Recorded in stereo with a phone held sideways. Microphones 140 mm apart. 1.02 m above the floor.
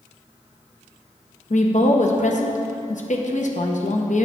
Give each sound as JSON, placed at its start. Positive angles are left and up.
{"t": 1.5, "sound": "a woman speaking", "side_deg": 60, "distance_m": 0.7}